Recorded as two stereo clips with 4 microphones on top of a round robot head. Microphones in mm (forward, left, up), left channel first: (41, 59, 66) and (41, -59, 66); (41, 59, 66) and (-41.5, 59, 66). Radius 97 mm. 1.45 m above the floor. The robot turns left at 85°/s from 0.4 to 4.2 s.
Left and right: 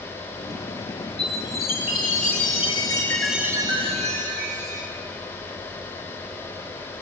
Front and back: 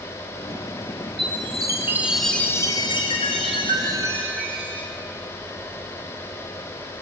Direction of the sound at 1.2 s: 175° left.